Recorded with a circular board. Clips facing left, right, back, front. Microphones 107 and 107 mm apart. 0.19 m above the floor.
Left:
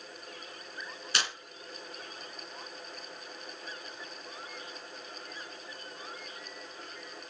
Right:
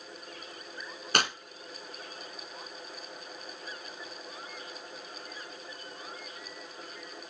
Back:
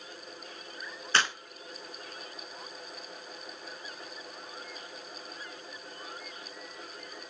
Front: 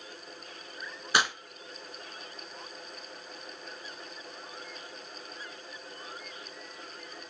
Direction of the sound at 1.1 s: 75° right.